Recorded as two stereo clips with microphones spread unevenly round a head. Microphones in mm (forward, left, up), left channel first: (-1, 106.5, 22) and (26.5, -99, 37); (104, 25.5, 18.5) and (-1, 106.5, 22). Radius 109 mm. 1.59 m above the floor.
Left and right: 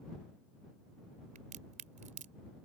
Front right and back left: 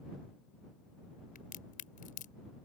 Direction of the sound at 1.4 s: 30° right.